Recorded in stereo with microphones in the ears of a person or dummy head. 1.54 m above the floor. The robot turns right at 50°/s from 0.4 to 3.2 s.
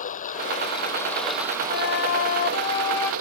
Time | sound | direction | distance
0.0 | running water | 135° left | ?
1.7 | a flute | 95° left | ?